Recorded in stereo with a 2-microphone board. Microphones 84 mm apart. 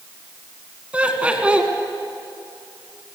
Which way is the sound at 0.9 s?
15° right (ahead or behind).